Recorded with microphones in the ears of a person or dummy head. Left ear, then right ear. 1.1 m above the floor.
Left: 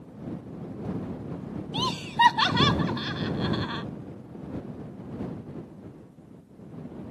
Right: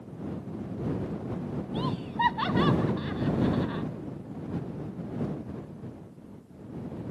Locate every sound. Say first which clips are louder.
1.7 s laughter: left 7 dB; 70° left (ahead or behind); by 3.9 s 85° left